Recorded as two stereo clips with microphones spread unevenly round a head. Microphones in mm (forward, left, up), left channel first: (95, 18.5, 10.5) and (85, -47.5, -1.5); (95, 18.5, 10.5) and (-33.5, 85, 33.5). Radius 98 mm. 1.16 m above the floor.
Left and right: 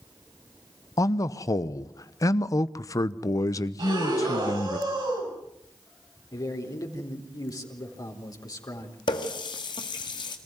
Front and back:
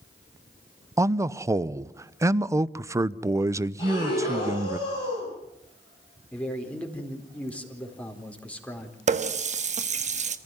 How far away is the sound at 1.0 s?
About 0.7 m.